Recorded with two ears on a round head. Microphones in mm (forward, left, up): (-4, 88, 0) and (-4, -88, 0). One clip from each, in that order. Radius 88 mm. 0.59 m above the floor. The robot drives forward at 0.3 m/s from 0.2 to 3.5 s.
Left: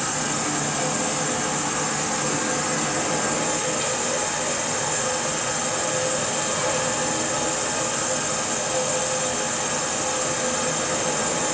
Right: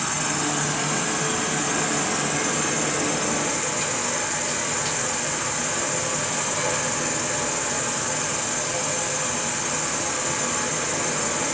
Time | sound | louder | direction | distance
0.0 | an insect | even | 60° right (ahead or behind) | 1.7 m